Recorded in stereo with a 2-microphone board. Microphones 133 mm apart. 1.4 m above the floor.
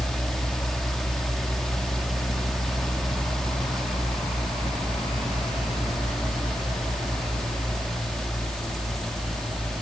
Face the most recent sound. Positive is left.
No sound to turn to.